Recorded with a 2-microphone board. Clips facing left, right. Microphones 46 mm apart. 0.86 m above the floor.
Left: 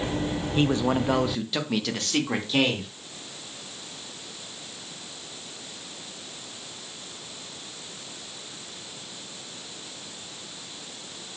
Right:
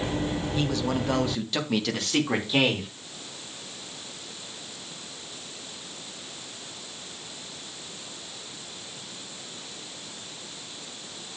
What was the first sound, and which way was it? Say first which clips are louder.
A man speaking: left 6 dB; 40° left (ahead or behind).